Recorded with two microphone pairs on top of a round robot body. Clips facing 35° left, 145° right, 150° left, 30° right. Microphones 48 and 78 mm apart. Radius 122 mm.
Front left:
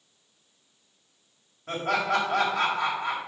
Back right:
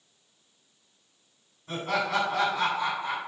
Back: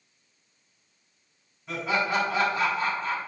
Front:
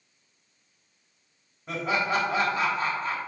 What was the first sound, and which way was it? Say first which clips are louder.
Laughter: front left 2 dB, even; 20° left.